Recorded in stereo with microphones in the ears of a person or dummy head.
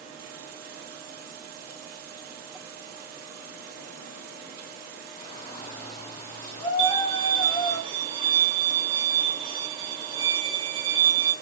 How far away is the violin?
About 0.6 m.